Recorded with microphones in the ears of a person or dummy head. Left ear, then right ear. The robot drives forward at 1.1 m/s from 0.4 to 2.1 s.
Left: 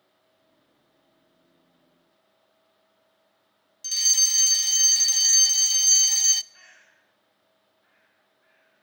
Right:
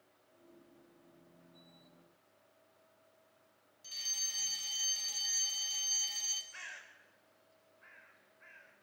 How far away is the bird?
About 6.5 m.